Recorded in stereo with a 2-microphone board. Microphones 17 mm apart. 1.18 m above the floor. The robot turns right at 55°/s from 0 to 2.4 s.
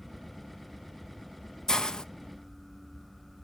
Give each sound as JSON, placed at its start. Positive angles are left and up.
{"t": 1.7, "sound": "a hiss", "side_deg": 35, "distance_m": 0.6}